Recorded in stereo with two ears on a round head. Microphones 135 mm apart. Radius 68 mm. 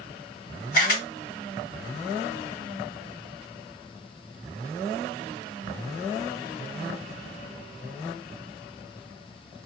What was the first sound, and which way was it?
A camera shutter, 65° left (ahead or behind).